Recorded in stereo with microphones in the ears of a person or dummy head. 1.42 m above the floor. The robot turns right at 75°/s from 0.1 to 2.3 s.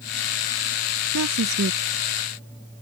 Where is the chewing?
No chewing in this recording.